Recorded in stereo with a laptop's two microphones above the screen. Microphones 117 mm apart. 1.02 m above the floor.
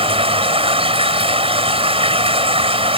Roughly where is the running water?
Right.